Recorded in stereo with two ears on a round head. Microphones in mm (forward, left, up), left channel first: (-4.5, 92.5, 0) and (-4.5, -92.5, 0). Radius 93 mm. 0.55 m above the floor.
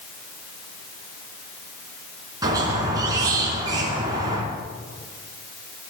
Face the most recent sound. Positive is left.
turn(degrees=-20)  # may be behind; listen again after turning